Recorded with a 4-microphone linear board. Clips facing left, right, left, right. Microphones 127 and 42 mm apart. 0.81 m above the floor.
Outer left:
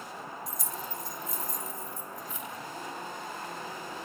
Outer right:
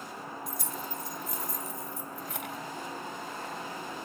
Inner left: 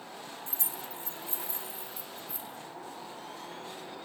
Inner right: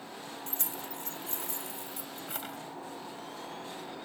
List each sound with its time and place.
0.5 s keys jangling: 60° right (ahead or behind), 1.5 m; by 2.6 s 75° right (ahead or behind), 3 m